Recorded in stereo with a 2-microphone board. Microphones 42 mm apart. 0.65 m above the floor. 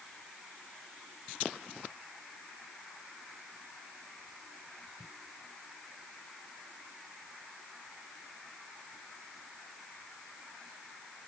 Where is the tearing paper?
I don't hear tearing paper.